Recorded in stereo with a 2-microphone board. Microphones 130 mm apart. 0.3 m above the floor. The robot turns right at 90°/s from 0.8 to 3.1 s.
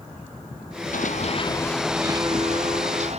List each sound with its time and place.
0.9 s running footsteps: 85° left; by 3.2 s 55° right (ahead or behind)